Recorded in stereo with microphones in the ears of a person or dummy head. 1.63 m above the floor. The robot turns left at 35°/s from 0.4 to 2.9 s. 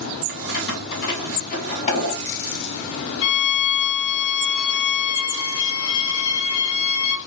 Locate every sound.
0.3 s keys jangling: 80° left, 2.5 m; by 2.4 s 25° left (ahead or behind), 2.5 m
3.2 s a violin: 85° left, 1.1 m